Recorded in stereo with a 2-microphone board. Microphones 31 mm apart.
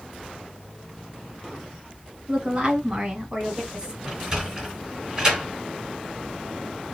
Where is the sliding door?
15° right (ahead or behind), 2.5 m.